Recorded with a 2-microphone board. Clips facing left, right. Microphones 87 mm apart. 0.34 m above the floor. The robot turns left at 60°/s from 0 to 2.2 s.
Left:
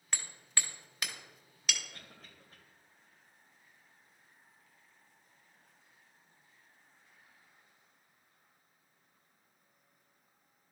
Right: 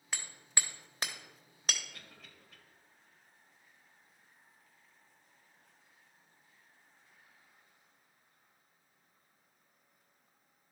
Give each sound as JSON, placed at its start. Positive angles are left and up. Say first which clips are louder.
{"t": 0.1, "sound": "hammering", "louder": "even", "side_deg": -5, "distance_m": 1.0}
{"t": 1.9, "sound": "a cough", "louder": "left 1 dB", "side_deg": 35, "distance_m": 1.8}